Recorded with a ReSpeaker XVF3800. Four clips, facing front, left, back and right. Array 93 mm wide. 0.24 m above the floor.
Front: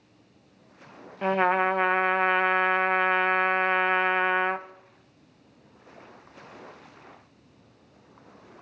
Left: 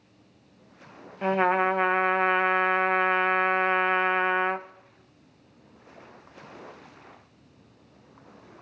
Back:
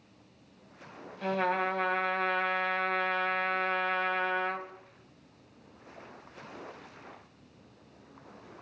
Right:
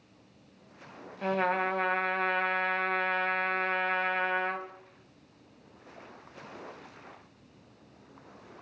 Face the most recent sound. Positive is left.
turn(degrees=30)